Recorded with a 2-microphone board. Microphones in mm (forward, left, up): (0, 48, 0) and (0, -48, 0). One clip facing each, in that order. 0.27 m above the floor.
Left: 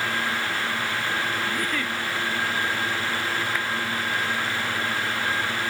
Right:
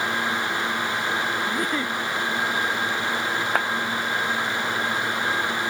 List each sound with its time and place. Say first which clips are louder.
1.5 s a giggle: right 2 dB; 25° right (ahead or behind)
3.5 s a clap: right 5 dB; 50° right (ahead or behind)